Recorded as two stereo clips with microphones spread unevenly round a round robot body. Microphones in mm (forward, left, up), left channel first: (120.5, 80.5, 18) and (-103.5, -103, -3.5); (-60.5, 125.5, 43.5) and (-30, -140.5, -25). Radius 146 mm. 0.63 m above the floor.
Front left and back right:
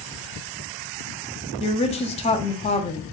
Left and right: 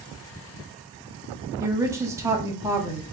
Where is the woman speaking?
25° right, 0.7 m.